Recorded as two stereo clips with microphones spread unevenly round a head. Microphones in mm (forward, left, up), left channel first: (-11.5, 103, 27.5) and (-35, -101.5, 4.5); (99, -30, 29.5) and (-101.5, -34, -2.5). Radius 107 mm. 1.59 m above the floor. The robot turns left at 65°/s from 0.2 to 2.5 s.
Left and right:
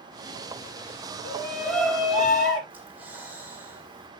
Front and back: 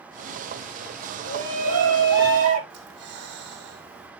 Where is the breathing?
Straight behind, 2.5 m.